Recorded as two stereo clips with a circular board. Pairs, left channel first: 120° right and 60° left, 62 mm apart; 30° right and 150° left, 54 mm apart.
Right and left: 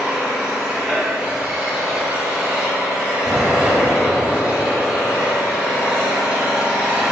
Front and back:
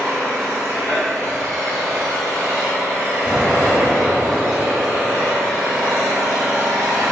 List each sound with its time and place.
0.0 s an engine running: 130° left, 0.8 m
3.2 s an explosion: 100° left, 0.8 m